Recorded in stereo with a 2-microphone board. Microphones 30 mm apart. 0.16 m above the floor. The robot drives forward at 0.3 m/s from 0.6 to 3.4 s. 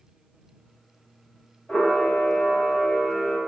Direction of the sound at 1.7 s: 75° left (ahead or behind).